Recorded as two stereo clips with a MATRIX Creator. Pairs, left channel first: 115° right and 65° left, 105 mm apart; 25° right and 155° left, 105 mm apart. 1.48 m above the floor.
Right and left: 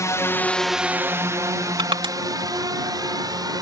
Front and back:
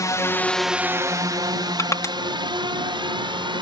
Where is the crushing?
35° left.